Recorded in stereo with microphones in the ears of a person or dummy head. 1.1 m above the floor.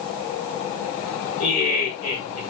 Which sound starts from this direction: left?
Laughter, at 1.4 s.